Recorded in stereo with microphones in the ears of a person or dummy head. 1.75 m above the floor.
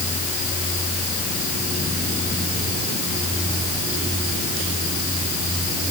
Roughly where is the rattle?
I don't hear a rattle.